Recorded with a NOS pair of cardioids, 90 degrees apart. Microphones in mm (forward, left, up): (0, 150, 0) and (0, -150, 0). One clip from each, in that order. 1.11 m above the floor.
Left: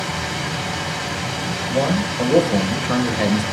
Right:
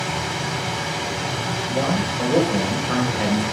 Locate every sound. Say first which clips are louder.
0.0 s a machine running: even; 10° left, 4 m
1.7 s a man speaking: left 3 dB; 30° left, 4.5 m